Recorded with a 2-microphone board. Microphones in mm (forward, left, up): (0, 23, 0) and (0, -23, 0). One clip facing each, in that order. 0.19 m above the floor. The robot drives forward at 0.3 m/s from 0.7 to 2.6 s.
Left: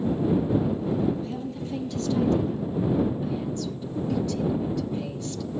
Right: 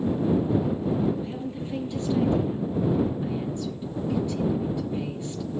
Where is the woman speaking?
20° right (ahead or behind), 3.5 m.